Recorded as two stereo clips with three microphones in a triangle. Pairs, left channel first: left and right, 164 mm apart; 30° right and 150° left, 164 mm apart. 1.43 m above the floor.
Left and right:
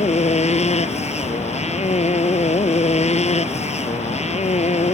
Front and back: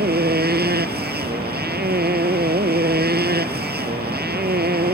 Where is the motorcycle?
140° left.